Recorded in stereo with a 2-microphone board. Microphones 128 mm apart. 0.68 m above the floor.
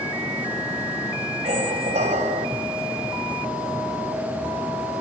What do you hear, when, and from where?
1.4 s a squeak: 75° right (ahead or behind), 2.5 m